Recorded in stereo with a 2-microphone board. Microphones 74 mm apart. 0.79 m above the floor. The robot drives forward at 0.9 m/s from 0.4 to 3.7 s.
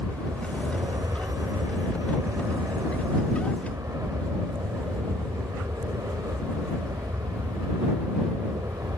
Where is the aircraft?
45° right (ahead or behind).